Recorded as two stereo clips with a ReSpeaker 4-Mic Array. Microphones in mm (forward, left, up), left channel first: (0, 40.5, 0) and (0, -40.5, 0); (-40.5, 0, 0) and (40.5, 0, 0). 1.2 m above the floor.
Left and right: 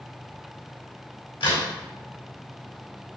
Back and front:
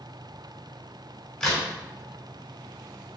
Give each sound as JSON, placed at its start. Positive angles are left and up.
{"t": 1.4, "sound": "a crack", "azimuth_deg": 100, "distance_m": 3.5}